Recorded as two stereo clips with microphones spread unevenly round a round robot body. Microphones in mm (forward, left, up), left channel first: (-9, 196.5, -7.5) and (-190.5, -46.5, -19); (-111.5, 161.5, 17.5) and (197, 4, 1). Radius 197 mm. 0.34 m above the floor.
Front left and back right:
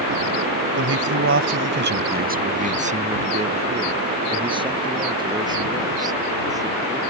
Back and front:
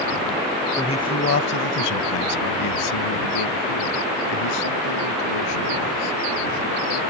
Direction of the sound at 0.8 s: 125° right.